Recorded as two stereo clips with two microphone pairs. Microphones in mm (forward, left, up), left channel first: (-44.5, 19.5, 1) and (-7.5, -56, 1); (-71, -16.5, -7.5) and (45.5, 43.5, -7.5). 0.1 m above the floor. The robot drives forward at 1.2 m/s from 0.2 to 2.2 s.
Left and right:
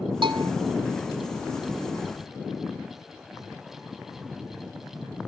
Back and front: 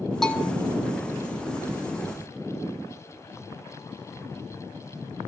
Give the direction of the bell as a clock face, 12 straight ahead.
2 o'clock.